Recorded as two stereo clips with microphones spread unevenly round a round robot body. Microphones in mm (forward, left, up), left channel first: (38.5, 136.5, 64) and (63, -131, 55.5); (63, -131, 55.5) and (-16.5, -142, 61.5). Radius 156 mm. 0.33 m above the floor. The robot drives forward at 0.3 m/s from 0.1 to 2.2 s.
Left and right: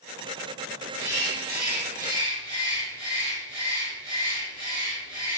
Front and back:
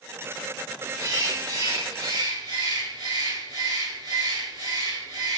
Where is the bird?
125° right, 1.0 m; by 5.4 s 140° right, 1.2 m.